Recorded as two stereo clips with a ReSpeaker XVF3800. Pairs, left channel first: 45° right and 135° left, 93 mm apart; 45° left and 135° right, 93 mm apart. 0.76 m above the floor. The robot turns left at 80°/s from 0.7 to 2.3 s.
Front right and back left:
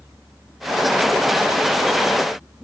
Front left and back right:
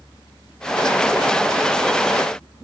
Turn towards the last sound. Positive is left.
No sound to turn to.